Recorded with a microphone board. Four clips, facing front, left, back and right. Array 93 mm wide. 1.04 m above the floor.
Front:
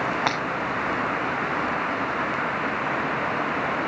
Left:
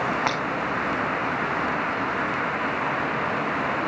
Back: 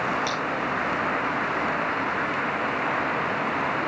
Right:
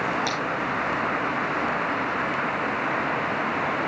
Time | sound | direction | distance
0.3 | breaking glass | 35° left | 2 m